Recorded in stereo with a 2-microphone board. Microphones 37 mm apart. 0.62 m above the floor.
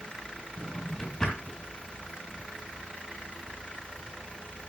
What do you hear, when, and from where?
0.6 s a drawer: 20° left (ahead or behind), 3 m